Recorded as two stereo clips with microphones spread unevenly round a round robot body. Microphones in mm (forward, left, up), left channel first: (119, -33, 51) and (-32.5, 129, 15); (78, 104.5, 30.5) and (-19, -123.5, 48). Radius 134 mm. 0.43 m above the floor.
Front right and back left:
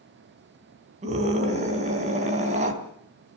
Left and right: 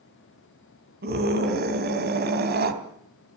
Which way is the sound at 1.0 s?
165° right.